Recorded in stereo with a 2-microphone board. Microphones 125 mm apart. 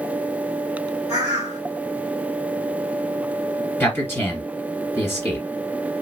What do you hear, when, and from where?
1.1 s a bird: 60° left (ahead or behind), 2 m
3.8 s a man speaking: 20° left (ahead or behind), 1.8 m